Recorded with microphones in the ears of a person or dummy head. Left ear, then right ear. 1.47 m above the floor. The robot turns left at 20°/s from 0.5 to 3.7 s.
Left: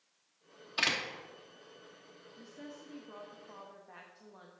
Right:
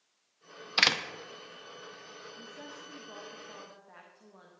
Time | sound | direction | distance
0.8 | a door slam | 40° right (ahead or behind) | 0.5 m
2.4 | a woman speaking | 20° right (ahead or behind) | 0.6 m